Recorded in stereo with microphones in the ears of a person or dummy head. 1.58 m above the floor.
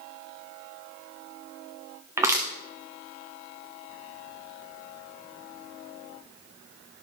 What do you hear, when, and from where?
2.2 s crushing: 10° right (ahead or behind), 1.1 m